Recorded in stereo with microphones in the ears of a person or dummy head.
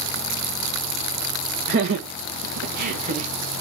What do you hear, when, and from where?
1.7 s laughter: 50° right (ahead or behind), 0.9 m; by 3.3 s 30° right (ahead or behind), 1.1 m